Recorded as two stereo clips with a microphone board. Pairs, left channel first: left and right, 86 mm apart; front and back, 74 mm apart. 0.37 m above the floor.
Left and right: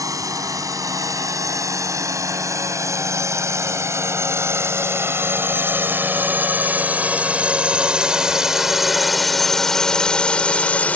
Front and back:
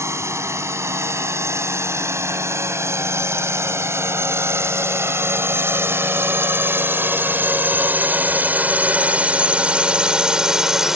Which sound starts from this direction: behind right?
A drone, at 0.0 s.